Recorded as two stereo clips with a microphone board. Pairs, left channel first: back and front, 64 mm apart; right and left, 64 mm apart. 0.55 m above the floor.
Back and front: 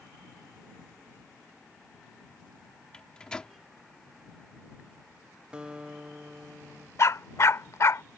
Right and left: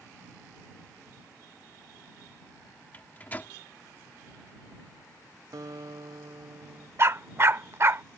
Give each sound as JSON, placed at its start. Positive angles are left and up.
{"t": 2.9, "sound": "a microwave", "azimuth_deg": -120}
{"t": 5.5, "sound": "a guitar", "azimuth_deg": 75}
{"t": 7.0, "sound": "a dog barking", "azimuth_deg": 140}